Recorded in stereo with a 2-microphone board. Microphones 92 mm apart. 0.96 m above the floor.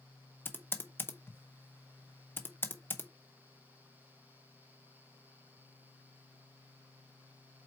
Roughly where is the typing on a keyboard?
Left.